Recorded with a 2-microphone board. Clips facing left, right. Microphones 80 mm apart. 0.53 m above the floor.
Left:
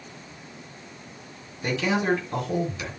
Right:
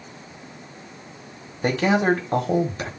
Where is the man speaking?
50° right (ahead or behind), 1.6 m.